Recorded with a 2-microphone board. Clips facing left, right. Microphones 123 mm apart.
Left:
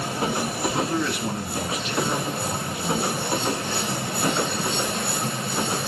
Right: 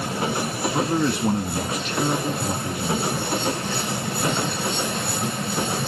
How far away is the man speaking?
About 1.2 m.